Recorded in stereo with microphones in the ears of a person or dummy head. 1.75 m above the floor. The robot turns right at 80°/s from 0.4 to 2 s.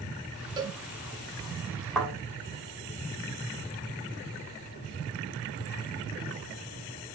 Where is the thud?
Centre (ahead or behind), 3.5 m; by 2.1 s 5° left (ahead or behind), 3.5 m.